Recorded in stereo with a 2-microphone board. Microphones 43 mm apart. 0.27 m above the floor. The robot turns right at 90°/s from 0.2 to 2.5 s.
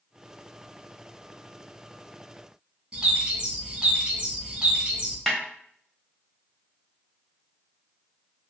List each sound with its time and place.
2.9 s a bird: 25° right (ahead or behind), 1.1 m
5.3 s a snare drum: 5° left (ahead or behind), 0.9 m